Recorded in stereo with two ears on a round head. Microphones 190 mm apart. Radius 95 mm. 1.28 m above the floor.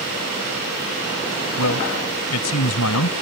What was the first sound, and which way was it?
A man speaking, 80° left.